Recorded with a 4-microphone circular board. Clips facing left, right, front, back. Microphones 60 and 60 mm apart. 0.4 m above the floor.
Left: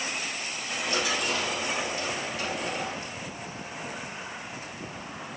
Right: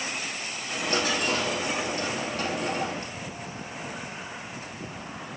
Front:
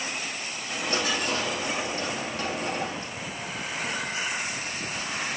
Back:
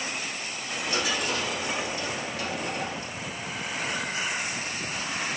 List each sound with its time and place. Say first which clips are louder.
0.7 s a dropped coin: right 2 dB, front 1 dB; 45° right, 3 m